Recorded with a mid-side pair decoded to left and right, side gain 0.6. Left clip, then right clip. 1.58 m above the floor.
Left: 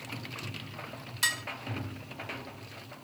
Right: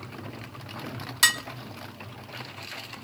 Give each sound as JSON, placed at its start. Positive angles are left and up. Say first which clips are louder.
{"t": 1.2, "sound": "dishes clattering", "louder": "right 7 dB", "azimuth_deg": -45, "distance_m": 1.7}